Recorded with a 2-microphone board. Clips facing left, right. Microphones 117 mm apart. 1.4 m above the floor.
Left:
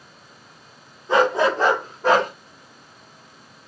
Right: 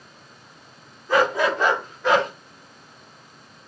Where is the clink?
No clink in this recording.